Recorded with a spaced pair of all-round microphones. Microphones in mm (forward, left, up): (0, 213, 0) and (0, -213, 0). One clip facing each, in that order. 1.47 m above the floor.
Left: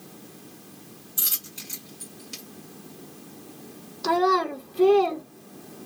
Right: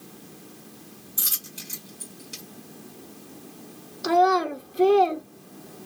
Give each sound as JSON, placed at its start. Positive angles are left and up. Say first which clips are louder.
{"t": 1.2, "sound": "a dropped coin", "louder": "right 1 dB", "side_deg": 10, "distance_m": 1.8}
{"t": 4.0, "sound": "a child speaking", "louder": "right 1 dB", "side_deg": 5, "distance_m": 0.8}